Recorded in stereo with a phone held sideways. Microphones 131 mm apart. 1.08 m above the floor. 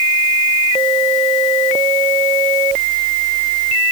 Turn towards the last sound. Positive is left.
No sound to turn to.